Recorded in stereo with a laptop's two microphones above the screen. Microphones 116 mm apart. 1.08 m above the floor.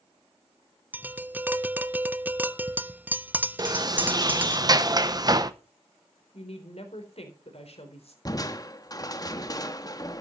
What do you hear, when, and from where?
0.9 s tapping: 15° right (ahead or behind), 0.7 m
3.6 s a sliding door: 35° right (ahead or behind), 0.8 m
6.3 s a woman speaking: 65° left (ahead or behind), 3.5 m
8.2 s crushing: 35° left (ahead or behind), 0.9 m